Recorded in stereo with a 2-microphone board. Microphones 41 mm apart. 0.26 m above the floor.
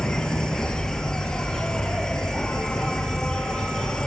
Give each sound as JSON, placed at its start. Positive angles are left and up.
{"t": 0.0, "sound": "an insect", "side_deg": 15, "distance_m": 1.2}